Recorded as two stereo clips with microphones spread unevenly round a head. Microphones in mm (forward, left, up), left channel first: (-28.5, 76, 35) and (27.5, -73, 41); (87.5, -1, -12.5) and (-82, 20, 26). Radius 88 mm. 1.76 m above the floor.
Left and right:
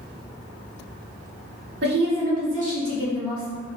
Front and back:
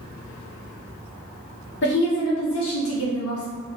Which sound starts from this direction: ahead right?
A woman speaking, at 1.8 s.